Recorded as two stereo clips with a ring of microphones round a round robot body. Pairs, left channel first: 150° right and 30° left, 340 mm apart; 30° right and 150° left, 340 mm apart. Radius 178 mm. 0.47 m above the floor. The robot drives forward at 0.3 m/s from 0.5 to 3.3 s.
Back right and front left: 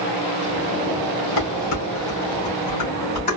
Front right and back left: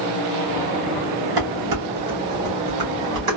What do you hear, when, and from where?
1.4 s dishes clattering: 170° left, 1.8 m; by 3.4 s 175° left, 2.5 m